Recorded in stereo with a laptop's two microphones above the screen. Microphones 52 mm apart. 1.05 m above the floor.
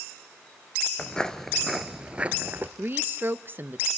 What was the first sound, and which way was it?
Footsteps, 25° left (ahead or behind).